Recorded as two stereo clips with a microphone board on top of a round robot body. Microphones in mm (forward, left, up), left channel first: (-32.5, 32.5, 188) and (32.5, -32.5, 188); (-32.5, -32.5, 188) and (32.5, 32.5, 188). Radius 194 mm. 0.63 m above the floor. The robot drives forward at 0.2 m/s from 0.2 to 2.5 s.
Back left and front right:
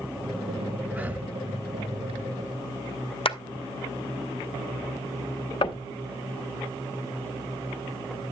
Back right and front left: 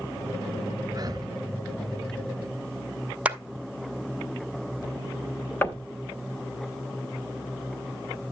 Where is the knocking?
155° left, 1.3 m.